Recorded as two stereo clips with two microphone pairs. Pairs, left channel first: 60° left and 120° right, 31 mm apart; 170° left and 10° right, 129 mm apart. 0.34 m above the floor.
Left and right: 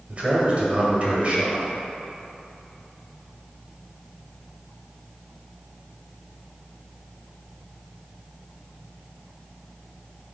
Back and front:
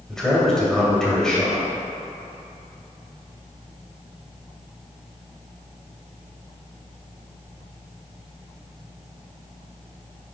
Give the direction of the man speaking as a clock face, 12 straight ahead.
4 o'clock.